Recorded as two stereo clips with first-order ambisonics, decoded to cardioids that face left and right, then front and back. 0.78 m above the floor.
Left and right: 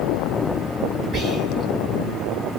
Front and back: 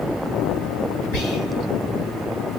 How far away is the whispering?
About 1.7 m.